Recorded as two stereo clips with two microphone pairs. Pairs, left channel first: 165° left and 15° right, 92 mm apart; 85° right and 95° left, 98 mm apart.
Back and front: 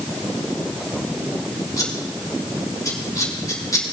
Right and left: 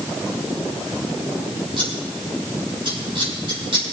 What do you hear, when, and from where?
1.8 s scissors: 115° left, 3 m